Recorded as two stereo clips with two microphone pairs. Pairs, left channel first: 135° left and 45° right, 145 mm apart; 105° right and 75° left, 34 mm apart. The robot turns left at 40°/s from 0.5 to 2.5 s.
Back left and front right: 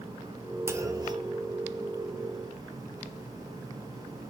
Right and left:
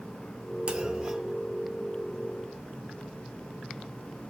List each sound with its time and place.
0.7 s a clunk: 20° left, 1.0 m; by 1.3 s 5° right, 1.0 m